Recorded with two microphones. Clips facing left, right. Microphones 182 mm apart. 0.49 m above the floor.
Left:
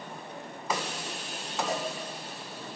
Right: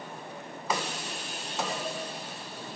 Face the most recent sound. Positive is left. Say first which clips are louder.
# left 7 dB
turn(degrees=45)  # may be behind; listen again after turning